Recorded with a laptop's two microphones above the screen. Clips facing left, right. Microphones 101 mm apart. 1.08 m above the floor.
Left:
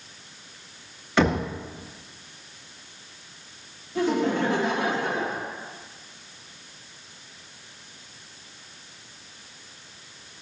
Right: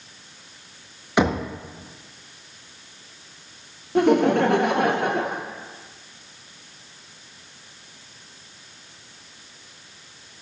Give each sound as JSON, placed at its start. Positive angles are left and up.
{"t": 1.2, "sound": "knocking", "side_deg": -15, "distance_m": 0.7}
{"t": 4.0, "sound": "laughter", "side_deg": -65, "distance_m": 0.7}